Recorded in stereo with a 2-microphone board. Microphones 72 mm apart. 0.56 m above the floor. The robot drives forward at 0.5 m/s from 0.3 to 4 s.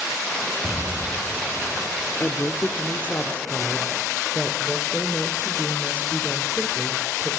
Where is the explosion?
15° right (ahead or behind), 2.5 m; by 2.1 s 20° right (ahead or behind), 2 m.